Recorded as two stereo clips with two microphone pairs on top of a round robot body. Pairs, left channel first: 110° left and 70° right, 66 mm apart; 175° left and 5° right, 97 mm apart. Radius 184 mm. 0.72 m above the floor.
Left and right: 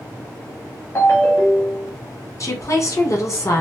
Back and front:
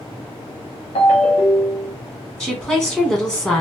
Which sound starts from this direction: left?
A woman speaking, at 2.4 s.